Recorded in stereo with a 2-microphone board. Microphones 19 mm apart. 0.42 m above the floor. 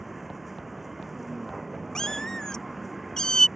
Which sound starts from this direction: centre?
A vehicle, at 0.0 s.